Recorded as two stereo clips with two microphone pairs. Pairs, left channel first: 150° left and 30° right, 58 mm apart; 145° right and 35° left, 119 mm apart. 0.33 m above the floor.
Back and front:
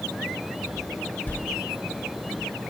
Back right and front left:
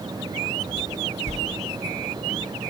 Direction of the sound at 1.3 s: 150° right.